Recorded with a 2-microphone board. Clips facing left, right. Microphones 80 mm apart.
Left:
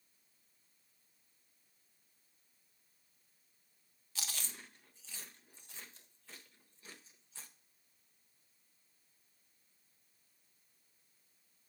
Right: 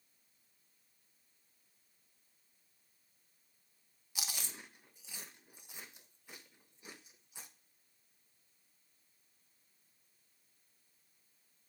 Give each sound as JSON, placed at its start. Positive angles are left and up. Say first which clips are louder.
{"t": 4.2, "sound": "chewing", "louder": "right 1 dB", "side_deg": -15, "distance_m": 0.7}